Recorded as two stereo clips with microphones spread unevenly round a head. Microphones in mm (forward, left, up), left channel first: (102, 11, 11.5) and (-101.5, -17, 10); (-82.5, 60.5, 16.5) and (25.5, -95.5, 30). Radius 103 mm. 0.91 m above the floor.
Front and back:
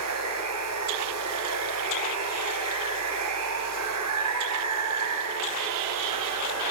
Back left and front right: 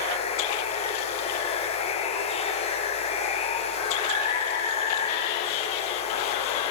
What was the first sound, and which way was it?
Running water, 175° right.